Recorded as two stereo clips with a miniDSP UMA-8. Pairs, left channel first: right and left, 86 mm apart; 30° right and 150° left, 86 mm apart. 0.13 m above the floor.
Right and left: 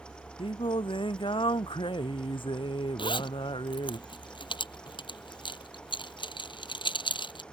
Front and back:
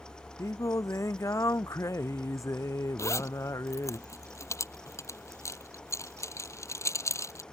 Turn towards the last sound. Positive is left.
turn(degrees=-85)